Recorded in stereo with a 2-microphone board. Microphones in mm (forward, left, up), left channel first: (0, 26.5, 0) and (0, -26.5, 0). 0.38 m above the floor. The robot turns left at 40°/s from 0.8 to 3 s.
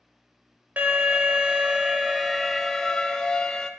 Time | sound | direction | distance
0.8 | an alarm | 110° right | 0.6 m